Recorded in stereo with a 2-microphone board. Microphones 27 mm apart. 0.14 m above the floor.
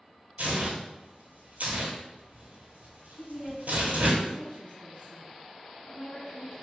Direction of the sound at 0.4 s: 75° right (ahead or behind).